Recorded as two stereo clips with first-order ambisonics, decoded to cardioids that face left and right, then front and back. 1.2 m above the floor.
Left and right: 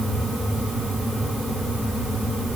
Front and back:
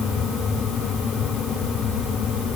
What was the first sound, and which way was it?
Only background noise.